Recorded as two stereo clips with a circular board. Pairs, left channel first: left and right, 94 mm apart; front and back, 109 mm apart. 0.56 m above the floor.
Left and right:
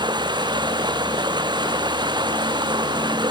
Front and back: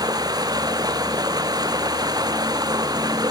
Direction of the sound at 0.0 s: 125° right.